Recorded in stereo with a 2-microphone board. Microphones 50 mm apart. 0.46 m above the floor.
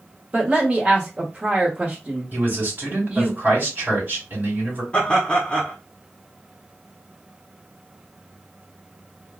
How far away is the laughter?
About 1.2 m.